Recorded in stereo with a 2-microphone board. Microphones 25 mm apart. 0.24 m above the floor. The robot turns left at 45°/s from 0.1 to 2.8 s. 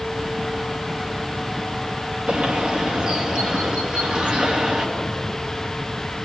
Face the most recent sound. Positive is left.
turn(degrees=-50)  # may be behind; listen again after turning